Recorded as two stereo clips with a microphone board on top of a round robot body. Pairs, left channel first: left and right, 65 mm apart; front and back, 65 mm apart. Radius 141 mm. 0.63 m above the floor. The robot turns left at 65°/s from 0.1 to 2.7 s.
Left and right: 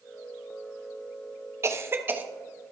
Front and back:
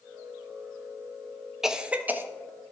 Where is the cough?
100° right, 1.0 m; by 2.2 s 140° right, 1.0 m.